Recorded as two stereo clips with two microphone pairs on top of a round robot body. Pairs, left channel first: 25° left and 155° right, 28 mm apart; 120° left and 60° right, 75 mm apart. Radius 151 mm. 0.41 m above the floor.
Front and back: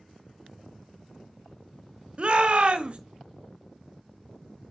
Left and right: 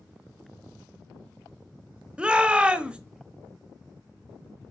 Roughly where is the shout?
Behind right.